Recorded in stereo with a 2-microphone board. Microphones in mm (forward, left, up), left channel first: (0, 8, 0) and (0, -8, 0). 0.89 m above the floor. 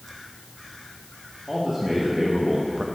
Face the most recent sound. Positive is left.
turn(degrees=-35)  # may be behind; listen again after turning